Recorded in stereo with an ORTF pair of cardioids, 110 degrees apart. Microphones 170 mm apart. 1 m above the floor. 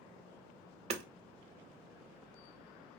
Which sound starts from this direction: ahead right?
Hammering, at 0.9 s.